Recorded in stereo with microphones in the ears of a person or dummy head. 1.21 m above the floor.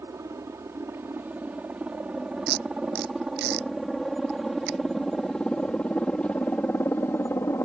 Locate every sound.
0.0 s a helicopter: 10° right (ahead or behind); by 7.6 s 10° left (ahead or behind)
2.5 s tape being pulled: 60° right (ahead or behind)